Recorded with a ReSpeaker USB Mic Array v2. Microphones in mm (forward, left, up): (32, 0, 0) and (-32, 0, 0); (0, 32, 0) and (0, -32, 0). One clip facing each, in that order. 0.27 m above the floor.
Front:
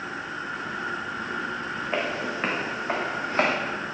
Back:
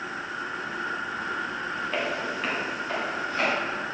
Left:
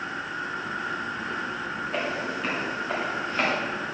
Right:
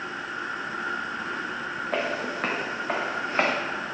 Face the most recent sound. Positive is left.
turn(degrees=-30)